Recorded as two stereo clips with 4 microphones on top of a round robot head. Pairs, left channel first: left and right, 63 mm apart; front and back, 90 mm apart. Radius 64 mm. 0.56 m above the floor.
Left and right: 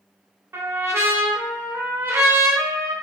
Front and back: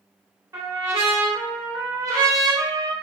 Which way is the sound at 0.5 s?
130° right.